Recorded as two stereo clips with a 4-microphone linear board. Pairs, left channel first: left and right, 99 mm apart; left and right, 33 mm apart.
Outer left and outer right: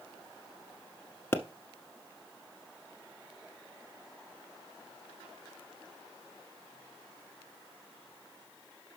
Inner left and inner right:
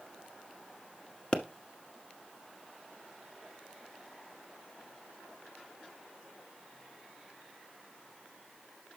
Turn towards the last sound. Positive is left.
turn(degrees=25)  # may be behind; listen again after turning